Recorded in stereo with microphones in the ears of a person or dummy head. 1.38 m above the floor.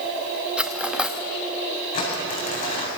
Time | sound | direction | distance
0.6 | cutlery clinking | centre (ahead or behind) | 1.0 m
1.9 | crumpling | 50° left (ahead or behind) | 8 m